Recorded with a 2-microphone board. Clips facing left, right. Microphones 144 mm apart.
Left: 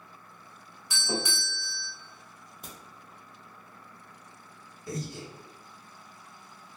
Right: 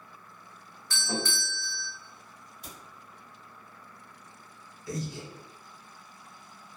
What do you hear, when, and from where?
0.9 s a doorbell: 15° left (ahead or behind), 0.6 m
2.6 s a crack: 45° left (ahead or behind), 0.9 m
4.9 s breathing: 50° left (ahead or behind), 1.2 m